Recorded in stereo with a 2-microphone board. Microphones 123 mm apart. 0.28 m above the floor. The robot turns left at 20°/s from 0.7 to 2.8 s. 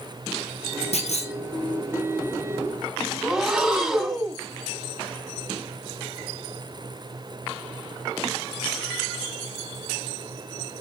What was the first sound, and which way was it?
A clunk, 65° left (ahead or behind).